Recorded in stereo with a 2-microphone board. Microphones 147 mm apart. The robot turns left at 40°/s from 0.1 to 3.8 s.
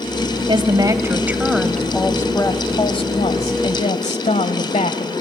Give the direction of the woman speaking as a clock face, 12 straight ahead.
4 o'clock.